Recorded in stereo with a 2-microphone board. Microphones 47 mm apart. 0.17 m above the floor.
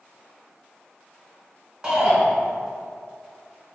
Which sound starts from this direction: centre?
A shout, at 1.8 s.